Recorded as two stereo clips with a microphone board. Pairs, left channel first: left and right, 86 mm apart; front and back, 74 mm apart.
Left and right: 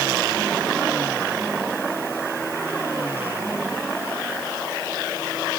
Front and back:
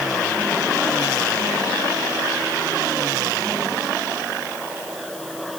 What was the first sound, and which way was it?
Only background noise.